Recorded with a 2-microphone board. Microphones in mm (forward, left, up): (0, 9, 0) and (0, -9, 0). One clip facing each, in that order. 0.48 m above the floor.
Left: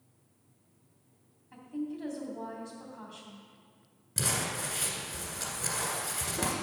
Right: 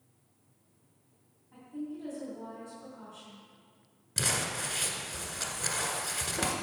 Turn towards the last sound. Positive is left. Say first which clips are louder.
# right 1 dB
turn(degrees=-20)  # may be behind; listen again after turning